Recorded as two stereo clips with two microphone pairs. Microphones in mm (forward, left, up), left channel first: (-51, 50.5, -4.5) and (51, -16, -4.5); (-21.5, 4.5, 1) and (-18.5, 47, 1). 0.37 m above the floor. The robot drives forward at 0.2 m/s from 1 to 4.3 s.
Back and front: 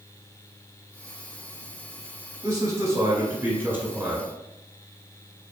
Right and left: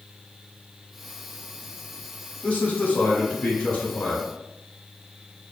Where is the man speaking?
70° right, 1.0 m; by 4.3 s 105° right, 1.0 m.